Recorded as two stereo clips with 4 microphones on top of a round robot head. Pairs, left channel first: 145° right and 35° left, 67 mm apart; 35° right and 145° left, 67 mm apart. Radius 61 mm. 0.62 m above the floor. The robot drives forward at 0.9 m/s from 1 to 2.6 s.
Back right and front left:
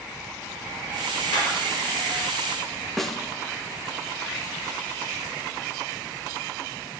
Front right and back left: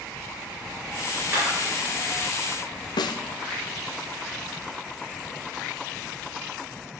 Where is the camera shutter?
165° right, 3.5 m.